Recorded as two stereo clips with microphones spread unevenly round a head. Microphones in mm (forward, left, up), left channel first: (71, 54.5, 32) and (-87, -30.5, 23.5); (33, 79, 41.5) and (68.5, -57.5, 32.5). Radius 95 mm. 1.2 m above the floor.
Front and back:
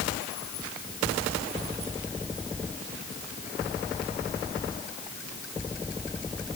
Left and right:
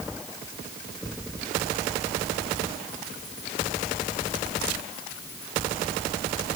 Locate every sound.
Only background noise.